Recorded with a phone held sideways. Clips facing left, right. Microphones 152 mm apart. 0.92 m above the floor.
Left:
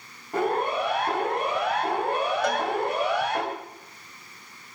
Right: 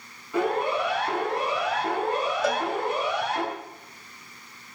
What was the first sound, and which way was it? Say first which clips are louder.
A siren: even; 55° left (ahead or behind).